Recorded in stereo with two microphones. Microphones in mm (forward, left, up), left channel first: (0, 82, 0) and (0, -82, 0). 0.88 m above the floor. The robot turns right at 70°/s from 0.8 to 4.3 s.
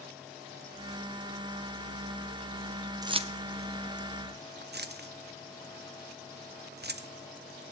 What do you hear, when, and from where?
3.0 s keys jangling: 20° right (ahead or behind), 0.8 m; by 7.1 s 70° right (ahead or behind), 0.8 m